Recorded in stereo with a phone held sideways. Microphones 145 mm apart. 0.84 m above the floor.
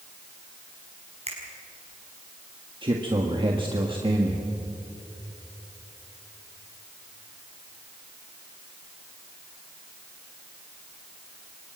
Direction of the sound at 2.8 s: 35° right (ahead or behind).